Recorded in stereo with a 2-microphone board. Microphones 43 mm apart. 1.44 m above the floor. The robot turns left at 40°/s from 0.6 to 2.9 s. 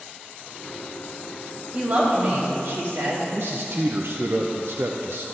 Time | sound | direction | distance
1.7 | a woman speaking | 30° right | 3 m
3.3 | a man speaking | 60° right (ahead or behind) | 0.6 m